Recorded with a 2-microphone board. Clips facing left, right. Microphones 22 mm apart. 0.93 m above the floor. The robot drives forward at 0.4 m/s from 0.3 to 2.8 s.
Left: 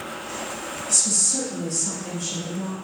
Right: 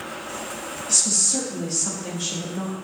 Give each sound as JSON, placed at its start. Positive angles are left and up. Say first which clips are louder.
{"t": 0.9, "sound": "a woman speaking", "louder": "right 1 dB", "side_deg": -25, "distance_m": 1.7}